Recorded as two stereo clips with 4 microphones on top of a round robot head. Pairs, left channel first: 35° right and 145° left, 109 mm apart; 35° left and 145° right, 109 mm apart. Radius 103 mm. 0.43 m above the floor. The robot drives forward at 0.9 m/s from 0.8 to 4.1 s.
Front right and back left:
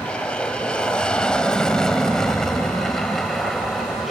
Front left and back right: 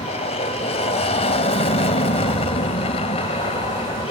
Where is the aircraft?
45° left; by 4.1 s 55° left.